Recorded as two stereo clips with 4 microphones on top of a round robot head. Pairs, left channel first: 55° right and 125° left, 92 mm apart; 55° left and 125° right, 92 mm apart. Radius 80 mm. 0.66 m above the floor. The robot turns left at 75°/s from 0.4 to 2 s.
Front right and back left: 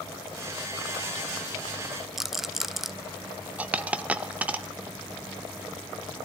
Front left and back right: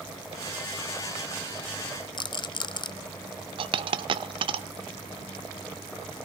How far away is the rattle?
About 0.6 m.